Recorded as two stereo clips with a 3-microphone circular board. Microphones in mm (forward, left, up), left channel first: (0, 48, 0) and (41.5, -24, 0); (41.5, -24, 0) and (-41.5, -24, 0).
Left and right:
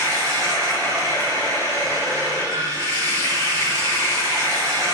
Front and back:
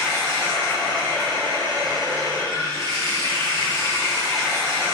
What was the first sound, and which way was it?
Running water, 145° left.